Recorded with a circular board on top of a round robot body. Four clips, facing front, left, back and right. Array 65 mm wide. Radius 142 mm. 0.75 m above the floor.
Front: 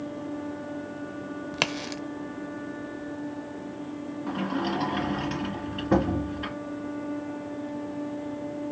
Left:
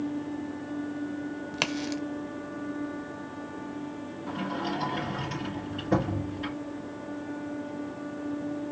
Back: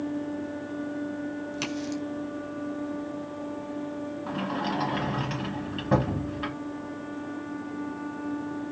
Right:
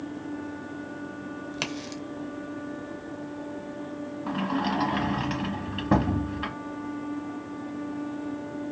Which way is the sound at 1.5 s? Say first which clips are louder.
Left 6 dB, even; 20° left.